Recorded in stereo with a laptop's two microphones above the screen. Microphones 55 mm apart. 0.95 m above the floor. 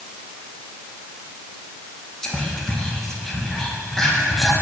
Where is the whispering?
10° left (ahead or behind), 0.8 m.